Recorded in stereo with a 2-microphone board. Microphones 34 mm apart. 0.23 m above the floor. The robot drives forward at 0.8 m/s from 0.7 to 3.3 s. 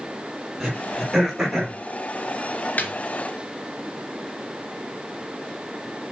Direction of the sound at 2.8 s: 55° left (ahead or behind).